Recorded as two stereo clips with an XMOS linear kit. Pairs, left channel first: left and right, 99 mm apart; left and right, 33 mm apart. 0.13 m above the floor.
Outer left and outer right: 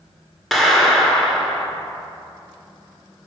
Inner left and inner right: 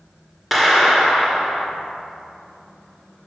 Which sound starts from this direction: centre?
A clap, at 0.5 s.